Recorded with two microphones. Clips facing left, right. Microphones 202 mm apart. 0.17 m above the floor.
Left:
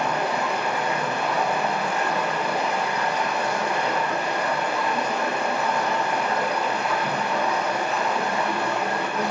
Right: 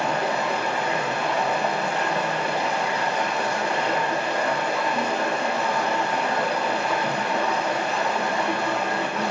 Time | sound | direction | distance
0.0 | running water | 30° right (ahead or behind) | 1.7 m